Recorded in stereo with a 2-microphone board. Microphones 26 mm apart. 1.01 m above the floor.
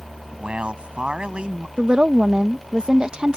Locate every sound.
0.3 s a man speaking: 45° right (ahead or behind)
1.8 s a woman speaking: 35° right (ahead or behind)